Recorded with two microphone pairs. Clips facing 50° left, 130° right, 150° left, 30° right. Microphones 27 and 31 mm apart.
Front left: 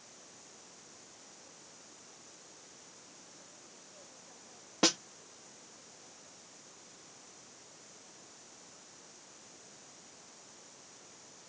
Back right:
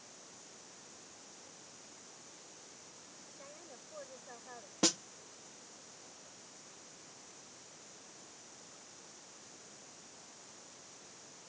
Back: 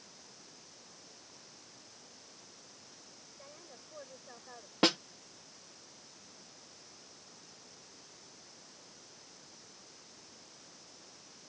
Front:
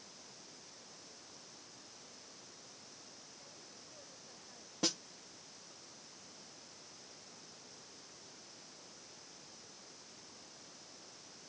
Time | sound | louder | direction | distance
3.4 | a woman speaking | back right 3 dB, back 3 dB | 165° right | ?
4.8 | a snare drum | front left 4 dB, back 9 dB | 115° left | ?